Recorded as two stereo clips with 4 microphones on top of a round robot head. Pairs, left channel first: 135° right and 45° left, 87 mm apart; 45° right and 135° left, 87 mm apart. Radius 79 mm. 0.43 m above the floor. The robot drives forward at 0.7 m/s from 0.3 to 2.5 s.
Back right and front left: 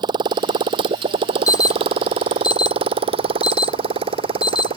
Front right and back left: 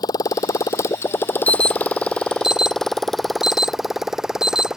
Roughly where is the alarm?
Right.